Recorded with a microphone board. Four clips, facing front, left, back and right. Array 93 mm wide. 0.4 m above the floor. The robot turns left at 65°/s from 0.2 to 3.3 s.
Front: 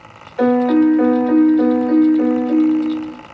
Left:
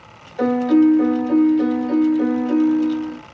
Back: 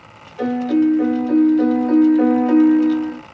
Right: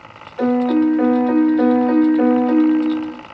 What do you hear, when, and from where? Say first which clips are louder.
0.4 s a piano: left 1 dB, front 4 dB; 5° right, 0.8 m; by 3.2 s 175° left, 0.8 m